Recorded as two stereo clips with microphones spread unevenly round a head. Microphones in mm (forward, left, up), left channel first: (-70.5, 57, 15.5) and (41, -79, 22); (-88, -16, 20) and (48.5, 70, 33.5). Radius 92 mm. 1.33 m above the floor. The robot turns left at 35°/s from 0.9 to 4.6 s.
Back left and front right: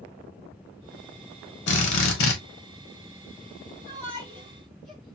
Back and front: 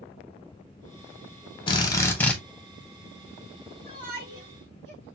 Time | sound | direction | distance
1.7 | a drill | 150° left | 1.6 m
3.9 | a shout | 70° left | 4.5 m